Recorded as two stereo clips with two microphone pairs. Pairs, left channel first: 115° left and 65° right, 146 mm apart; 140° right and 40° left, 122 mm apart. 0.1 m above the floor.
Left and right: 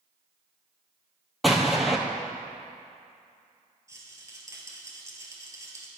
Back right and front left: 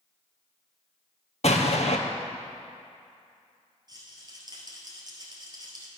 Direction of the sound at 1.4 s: 155° right.